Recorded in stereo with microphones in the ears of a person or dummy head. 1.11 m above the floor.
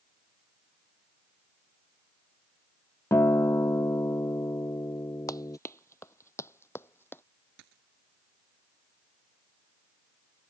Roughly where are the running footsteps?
Left.